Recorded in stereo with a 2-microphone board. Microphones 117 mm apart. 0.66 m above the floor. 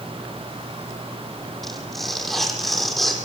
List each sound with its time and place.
1.6 s tearing paper: centre (ahead or behind), 7.5 m